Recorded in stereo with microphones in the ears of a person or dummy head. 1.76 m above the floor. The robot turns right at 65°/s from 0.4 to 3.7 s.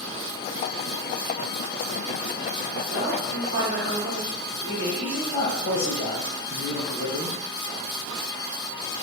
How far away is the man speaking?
About 1.6 m.